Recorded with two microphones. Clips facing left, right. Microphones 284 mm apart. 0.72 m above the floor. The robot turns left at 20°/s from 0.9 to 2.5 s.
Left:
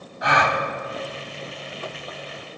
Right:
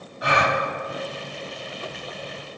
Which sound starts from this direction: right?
A gasp, at 0.2 s.